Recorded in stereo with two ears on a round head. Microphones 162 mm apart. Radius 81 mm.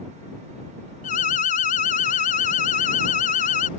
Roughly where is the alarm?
Left.